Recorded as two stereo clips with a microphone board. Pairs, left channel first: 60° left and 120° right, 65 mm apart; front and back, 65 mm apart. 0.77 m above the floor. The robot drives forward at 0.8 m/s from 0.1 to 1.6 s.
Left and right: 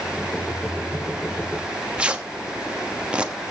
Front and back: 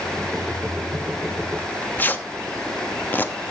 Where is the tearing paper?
50° right, 1.2 m.